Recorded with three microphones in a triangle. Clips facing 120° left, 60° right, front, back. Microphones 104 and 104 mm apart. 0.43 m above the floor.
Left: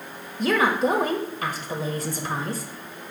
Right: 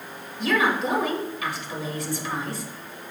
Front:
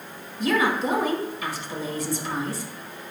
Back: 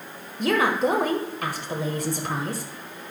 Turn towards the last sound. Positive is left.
turn(degrees=160)